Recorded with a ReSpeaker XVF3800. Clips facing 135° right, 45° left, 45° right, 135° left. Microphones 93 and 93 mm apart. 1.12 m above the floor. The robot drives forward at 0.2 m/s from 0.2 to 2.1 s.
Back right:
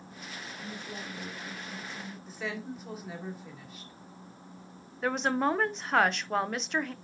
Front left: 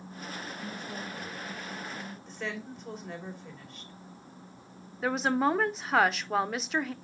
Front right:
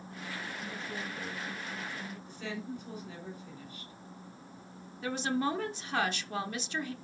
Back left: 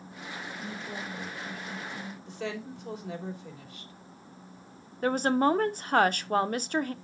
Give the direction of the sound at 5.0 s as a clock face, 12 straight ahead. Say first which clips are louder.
Front left 1 dB, back left 7 dB; 8 o'clock.